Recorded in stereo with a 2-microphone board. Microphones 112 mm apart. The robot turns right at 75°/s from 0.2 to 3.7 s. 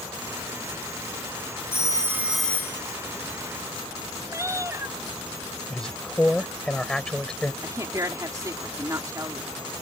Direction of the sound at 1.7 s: 50° right.